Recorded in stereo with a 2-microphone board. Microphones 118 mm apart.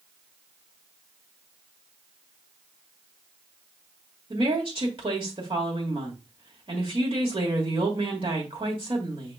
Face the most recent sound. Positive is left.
turn(degrees=-50)  # may be behind; listen again after turning